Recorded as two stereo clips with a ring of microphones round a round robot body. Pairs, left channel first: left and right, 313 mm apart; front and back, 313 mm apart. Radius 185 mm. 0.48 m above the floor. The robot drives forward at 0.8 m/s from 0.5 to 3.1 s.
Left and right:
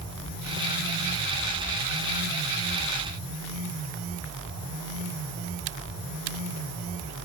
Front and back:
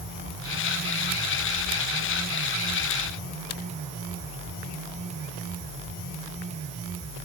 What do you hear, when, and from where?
Only background noise.